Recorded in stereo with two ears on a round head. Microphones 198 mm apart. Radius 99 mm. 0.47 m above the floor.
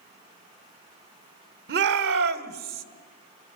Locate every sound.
1.7 s a shout: 50° right (ahead or behind), 1.3 m; by 2.8 s 40° right (ahead or behind), 1.6 m